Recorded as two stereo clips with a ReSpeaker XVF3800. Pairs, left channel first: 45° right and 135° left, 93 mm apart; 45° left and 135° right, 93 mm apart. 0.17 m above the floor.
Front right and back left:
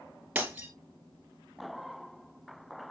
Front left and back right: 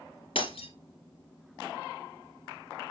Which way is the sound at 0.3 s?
55° left.